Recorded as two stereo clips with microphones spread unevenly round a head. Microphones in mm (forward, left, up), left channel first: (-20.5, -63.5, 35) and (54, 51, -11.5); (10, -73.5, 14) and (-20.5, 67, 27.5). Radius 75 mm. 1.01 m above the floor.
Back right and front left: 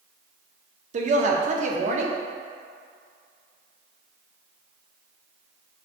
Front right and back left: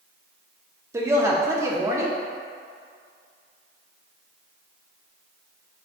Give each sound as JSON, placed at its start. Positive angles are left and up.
{"t": 0.9, "sound": "a woman speaking", "azimuth_deg": 30, "distance_m": 0.7}